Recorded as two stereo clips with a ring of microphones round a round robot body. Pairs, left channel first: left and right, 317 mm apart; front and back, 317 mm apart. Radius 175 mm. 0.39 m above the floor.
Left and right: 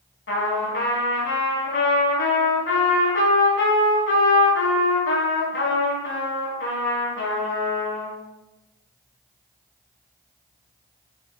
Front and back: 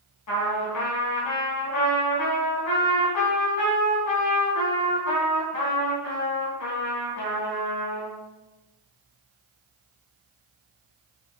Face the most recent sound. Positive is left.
turn(degrees=40)